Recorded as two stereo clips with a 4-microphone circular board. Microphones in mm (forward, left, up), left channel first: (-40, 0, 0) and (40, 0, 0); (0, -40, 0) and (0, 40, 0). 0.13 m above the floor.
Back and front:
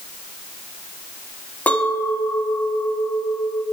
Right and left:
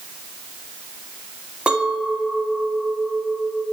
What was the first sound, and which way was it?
A clink, 145° left.